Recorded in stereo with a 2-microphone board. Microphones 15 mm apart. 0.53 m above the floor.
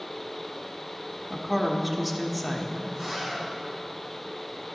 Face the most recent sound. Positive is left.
turn(degrees=-30)  # may be behind; listen again after turning